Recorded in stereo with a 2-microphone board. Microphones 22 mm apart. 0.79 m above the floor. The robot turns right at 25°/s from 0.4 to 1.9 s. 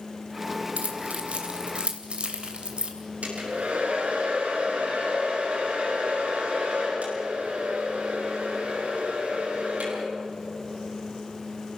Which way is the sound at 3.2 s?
70° right (ahead or behind).